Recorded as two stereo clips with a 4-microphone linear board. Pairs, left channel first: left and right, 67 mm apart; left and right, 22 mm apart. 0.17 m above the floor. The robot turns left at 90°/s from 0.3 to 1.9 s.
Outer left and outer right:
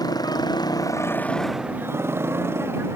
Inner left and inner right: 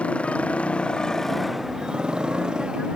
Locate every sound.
0.0 s a motorcycle: 105° left; by 3.0 s 35° right